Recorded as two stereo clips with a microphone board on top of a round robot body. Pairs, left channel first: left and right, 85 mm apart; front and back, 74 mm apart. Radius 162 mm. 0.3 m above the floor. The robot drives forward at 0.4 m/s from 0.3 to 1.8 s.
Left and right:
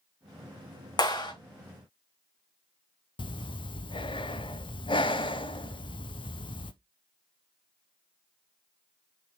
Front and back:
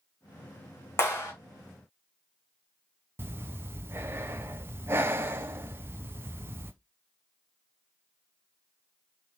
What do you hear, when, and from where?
1.0 s a clap: 55° left, 3.5 m
3.2 s breathing: 120° left, 0.6 m